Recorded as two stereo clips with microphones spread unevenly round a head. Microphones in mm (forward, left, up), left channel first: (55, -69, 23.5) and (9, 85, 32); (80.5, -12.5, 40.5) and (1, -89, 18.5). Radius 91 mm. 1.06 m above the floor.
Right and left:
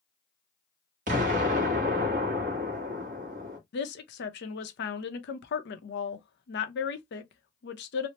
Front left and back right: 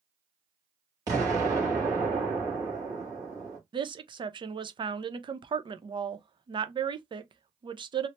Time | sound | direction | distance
1.1 | an explosion | 155° left | 1.1 m
3.7 | a woman speaking | 90° right | 0.7 m